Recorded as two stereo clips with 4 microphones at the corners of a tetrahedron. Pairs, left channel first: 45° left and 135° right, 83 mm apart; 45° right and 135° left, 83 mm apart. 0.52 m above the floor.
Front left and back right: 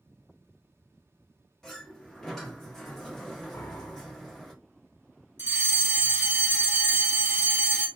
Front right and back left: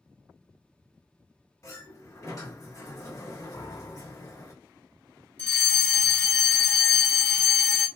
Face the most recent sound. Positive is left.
turn(degrees=-105)